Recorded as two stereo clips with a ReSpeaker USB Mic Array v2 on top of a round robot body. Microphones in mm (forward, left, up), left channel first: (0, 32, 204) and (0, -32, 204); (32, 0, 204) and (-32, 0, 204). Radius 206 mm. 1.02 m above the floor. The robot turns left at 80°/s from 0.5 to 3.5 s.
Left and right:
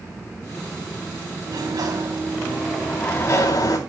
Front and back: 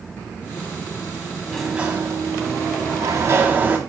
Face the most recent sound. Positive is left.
turn(degrees=115)